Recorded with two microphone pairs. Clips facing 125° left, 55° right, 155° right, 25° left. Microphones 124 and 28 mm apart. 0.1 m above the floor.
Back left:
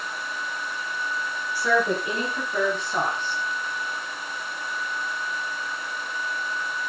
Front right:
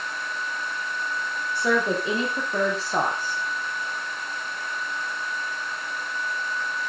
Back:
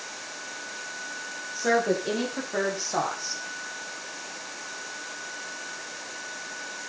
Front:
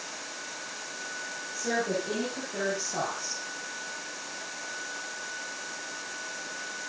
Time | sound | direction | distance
1.6 | a woman speaking | 120° right | 6 m